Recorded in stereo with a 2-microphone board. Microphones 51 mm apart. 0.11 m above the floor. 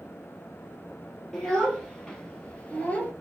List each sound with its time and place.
1.3 s a child speaking: 10° left (ahead or behind), 1.8 m; by 3.1 s 35° left (ahead or behind), 1.4 m